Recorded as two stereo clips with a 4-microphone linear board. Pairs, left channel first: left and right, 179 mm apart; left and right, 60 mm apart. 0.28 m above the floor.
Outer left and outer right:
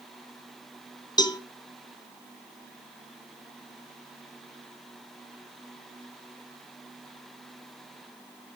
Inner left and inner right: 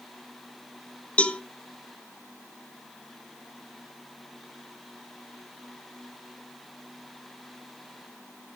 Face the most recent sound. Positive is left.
turn(degrees=20)  # may be behind; listen again after turning